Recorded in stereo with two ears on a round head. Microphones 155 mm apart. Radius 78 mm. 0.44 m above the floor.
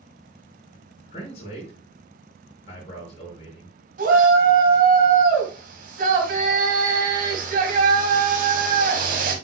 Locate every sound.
1.1 s a man speaking: 35° left (ahead or behind), 5 m
4.0 s a shout: 50° right (ahead or behind), 2.5 m